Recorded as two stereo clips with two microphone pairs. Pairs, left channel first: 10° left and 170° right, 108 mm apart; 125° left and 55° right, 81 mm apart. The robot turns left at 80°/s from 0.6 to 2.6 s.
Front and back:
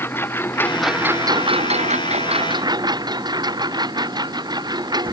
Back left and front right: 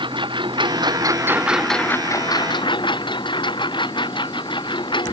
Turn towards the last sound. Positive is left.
turn(degrees=135)